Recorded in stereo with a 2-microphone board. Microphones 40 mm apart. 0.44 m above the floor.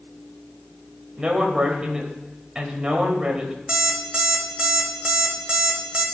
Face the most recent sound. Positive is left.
turn(degrees=-25)  # may be behind; listen again after turning